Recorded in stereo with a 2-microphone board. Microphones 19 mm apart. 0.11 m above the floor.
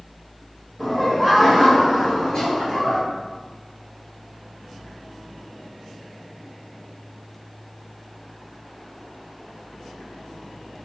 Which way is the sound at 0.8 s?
10° left (ahead or behind).